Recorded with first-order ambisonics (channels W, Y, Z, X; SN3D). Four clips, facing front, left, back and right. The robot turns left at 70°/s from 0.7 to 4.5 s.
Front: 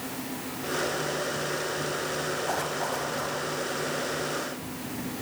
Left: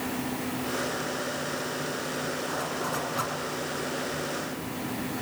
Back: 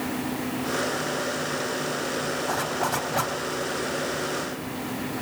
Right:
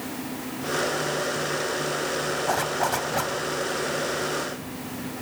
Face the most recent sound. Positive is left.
turn(degrees=130)